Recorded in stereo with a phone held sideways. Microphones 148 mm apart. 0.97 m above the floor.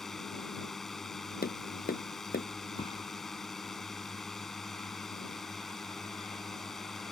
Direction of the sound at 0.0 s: Centre (ahead or behind).